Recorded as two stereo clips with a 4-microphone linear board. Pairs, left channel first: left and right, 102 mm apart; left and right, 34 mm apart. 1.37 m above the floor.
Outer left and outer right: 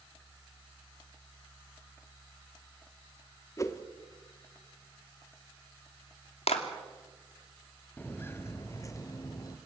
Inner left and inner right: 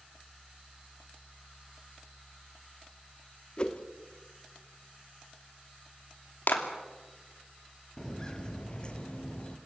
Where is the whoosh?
30° left (ahead or behind), 1.3 m.